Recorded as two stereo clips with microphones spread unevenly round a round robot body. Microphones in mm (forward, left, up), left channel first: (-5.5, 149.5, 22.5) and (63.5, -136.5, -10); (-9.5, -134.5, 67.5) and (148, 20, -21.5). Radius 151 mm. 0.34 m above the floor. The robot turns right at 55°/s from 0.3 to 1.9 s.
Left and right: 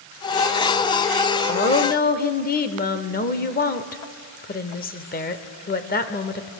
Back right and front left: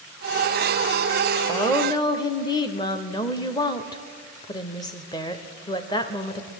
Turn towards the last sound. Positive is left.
turn(degrees=120)